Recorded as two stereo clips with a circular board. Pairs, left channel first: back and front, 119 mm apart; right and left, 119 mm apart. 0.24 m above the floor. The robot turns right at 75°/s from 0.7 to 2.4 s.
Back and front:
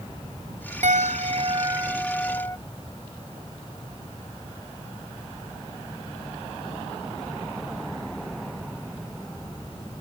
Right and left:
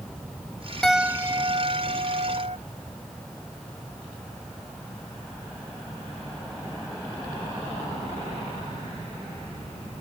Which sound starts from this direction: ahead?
A piano, at 0.8 s.